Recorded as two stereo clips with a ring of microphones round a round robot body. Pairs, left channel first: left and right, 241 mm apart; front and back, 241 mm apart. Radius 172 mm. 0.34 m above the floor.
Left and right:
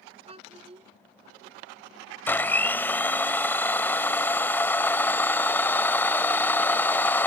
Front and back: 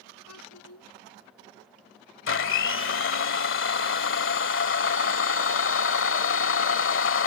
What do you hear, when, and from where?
0.3 s a child speaking: 25° right
2.3 s a blender: 10° left